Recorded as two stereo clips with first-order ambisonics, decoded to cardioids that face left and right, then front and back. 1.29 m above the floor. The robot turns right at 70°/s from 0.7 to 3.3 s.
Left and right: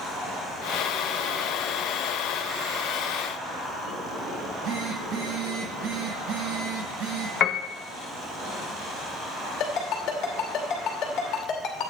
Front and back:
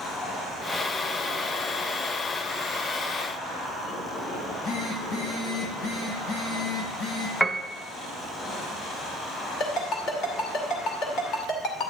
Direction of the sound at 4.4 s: 40° right.